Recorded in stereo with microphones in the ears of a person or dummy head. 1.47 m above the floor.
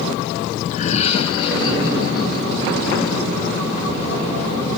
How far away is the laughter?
About 0.6 m.